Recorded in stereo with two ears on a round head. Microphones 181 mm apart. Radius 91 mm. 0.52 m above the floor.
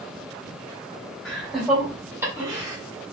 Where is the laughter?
Centre (ahead or behind), 1.8 m; by 2.8 s 20° right (ahead or behind), 1.5 m.